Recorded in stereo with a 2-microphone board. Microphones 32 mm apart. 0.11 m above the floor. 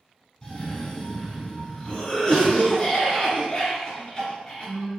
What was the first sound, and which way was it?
A cough, 15° left (ahead or behind).